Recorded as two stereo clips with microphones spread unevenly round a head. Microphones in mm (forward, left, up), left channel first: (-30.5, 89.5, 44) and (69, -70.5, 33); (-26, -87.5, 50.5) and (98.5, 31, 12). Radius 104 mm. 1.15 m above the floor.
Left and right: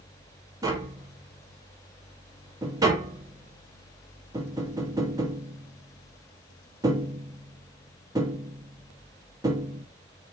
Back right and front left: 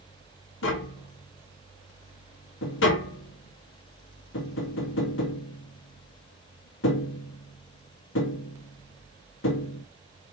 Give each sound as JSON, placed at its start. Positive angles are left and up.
{"t": 0.6, "sound": "tapping", "azimuth_deg": -130, "distance_m": 2.0}